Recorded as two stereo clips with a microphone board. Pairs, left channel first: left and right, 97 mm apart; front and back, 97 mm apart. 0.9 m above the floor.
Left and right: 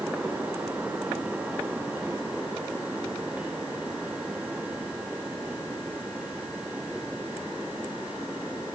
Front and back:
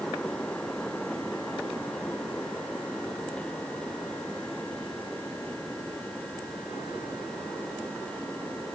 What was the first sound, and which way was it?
Only background noise.